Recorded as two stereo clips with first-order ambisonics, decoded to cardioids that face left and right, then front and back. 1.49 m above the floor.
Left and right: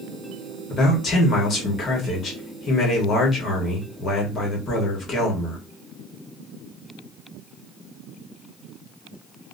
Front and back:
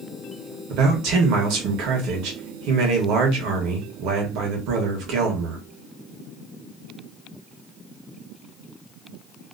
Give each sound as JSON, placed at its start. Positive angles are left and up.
{"t": 0.7, "sound": "a man speaking", "azimuth_deg": 155, "distance_m": 1.1}